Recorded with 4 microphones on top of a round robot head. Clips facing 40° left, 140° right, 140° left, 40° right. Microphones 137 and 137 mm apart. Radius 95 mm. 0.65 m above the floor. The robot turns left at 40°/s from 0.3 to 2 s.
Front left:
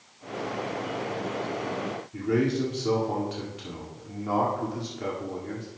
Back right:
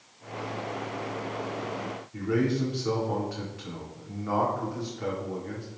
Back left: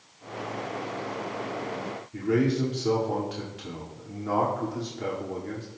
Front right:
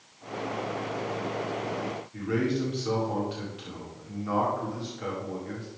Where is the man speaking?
100° left, 2.0 m.